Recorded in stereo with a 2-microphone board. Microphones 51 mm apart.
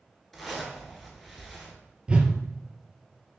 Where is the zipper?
Centre (ahead or behind), 0.9 m.